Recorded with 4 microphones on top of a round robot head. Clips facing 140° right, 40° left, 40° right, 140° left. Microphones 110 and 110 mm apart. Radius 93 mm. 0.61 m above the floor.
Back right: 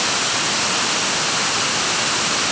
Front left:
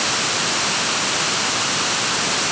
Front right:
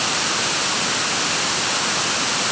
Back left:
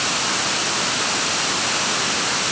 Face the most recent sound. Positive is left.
No sound to turn to.